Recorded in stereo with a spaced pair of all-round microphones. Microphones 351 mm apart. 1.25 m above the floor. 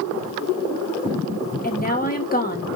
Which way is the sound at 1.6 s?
25° left (ahead or behind).